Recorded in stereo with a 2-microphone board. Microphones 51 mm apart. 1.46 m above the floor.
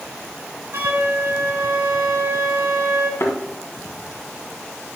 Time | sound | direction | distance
0.7 | a flute | 55° right (ahead or behind) | 1.7 m
3.2 | a thud | 55° left (ahead or behind) | 2 m